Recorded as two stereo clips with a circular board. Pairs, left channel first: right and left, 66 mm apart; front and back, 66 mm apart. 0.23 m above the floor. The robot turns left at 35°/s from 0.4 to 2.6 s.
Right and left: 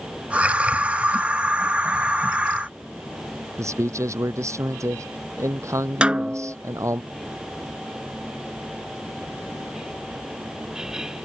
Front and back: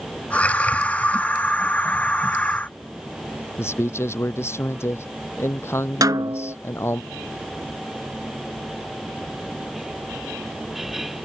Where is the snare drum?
165° left.